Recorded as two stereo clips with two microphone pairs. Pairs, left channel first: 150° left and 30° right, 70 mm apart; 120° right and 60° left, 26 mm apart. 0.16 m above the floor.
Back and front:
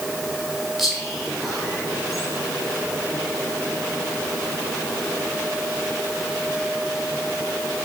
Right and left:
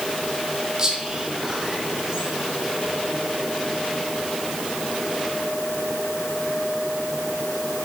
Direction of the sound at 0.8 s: 55° left.